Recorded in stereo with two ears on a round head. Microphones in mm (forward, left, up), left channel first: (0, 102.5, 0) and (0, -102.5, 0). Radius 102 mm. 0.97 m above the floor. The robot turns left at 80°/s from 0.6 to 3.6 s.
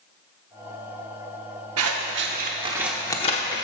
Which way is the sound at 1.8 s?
70° right (ahead or behind).